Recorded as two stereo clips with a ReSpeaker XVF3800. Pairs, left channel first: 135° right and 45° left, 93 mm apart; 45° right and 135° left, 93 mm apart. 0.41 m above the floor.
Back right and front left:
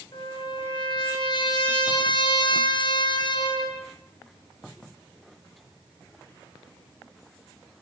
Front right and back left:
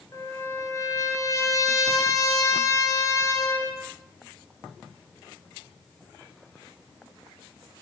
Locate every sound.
0.1 s a trumpet: 100° right, 5.5 m